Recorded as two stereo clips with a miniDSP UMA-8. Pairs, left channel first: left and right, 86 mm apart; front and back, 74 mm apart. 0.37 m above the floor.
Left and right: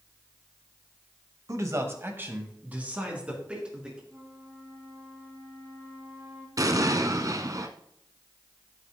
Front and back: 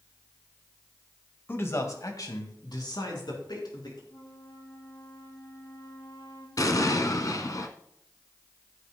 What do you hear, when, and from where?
1.5 s a man speaking: 55° right, 1.4 m; by 4.0 s 10° right, 4.5 m
4.1 s a flute: 30° right, 1.9 m
6.6 s an explosion: 40° right, 0.9 m